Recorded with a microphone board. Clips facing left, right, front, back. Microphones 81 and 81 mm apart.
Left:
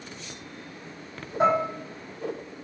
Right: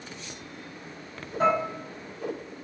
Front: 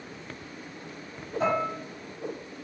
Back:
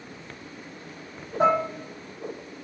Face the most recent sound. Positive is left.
turn(degrees=155)